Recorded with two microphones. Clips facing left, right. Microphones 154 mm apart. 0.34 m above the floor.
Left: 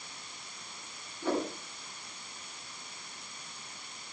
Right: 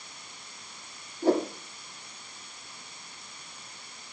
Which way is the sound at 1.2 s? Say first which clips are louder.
Right 7 dB; 40° right (ahead or behind).